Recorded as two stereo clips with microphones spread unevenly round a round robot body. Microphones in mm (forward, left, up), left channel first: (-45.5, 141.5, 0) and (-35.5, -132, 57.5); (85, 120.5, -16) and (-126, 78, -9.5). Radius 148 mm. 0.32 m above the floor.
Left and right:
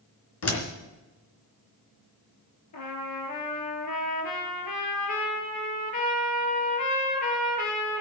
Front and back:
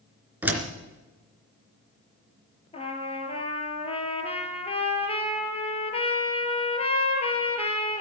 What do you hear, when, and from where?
0.4 s a door slam: 110° left, 3 m
2.7 s a trumpet: 75° left, 3 m